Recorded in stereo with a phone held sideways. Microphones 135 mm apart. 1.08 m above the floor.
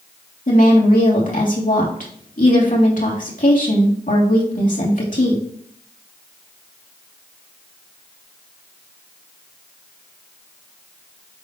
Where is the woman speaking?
70° left (ahead or behind), 3 m.